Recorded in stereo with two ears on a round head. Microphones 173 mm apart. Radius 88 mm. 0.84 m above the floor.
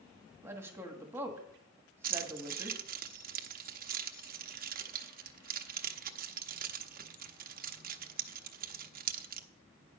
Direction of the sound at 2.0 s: 50° right (ahead or behind).